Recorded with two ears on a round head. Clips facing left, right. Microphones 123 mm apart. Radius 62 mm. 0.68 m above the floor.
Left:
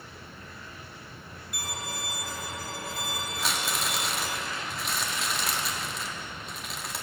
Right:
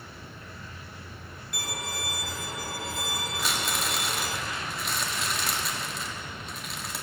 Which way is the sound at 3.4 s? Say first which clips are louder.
Even; centre (ahead or behind).